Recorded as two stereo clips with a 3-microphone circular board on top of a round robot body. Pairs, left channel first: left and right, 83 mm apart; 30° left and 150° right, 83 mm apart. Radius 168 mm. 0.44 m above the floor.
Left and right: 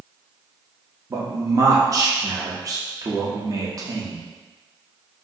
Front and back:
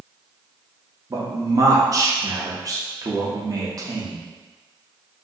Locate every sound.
1.1 s a man speaking: 120° right, 1.0 m